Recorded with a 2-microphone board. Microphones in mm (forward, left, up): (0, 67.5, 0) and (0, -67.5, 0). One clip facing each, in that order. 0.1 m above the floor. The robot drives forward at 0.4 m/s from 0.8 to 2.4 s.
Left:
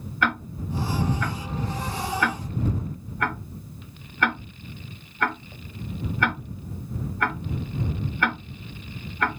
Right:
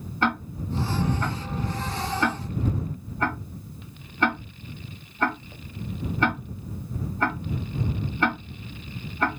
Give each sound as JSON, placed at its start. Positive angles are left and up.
{"t": 0.2, "sound": "ticking", "side_deg": -30, "distance_m": 0.9}